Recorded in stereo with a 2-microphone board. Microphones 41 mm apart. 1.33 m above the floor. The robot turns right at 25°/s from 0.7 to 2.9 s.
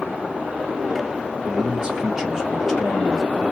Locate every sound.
1.5 s a man speaking: 30° right, 1.9 m; by 3.4 s 5° left, 1.9 m